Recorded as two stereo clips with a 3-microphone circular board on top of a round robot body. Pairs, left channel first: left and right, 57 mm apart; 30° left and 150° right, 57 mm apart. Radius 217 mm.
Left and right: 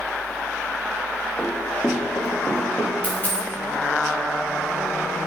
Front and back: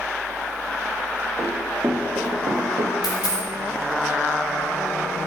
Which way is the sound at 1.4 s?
165° left.